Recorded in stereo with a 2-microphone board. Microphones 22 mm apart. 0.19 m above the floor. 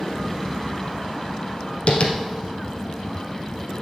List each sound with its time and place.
1.9 s tapping: 55° left (ahead or behind), 1.7 m